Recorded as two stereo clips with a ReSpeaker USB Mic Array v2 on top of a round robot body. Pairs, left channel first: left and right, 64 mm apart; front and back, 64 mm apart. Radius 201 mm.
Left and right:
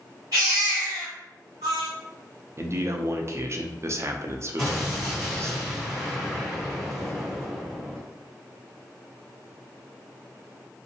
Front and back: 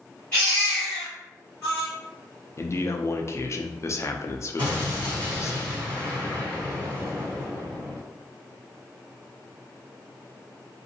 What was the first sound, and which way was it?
A baby crying, 70° right.